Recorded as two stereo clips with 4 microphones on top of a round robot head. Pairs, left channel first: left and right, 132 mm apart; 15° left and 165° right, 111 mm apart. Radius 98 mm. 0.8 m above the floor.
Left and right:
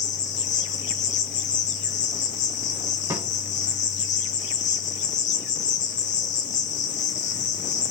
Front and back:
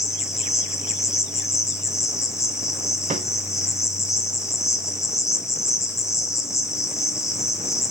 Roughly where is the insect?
Left.